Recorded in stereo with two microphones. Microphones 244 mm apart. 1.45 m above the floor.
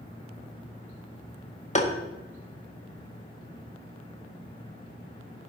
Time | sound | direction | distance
1.8 | tapping | 30° left (ahead or behind) | 0.9 m